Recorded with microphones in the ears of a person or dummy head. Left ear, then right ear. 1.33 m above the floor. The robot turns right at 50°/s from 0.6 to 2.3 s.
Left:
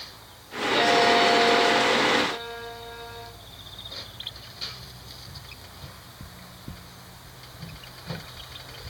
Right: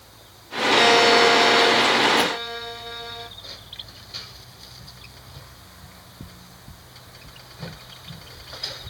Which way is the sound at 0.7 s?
130° right.